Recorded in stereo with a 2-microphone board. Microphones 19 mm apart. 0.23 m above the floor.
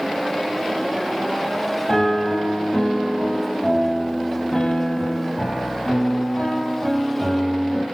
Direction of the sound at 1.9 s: 35° left (ahead or behind).